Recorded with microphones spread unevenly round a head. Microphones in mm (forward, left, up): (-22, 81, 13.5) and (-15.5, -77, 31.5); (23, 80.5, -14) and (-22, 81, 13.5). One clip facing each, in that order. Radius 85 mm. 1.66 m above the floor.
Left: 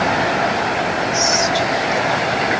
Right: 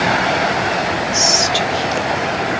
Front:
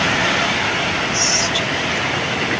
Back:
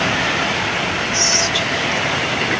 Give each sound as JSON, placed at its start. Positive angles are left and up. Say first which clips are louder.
{"t": 1.1, "sound": "whispering", "louder": "even, back 1 dB", "azimuth_deg": -140, "distance_m": 1.1}